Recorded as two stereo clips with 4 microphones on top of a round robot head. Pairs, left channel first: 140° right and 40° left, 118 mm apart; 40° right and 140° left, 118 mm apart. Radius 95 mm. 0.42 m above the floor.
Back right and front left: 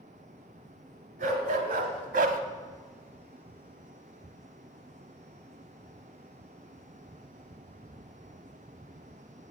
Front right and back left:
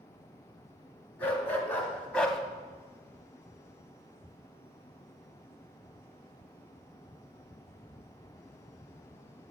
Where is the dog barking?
40° left, 1.9 m; by 2.4 s 50° left, 0.6 m.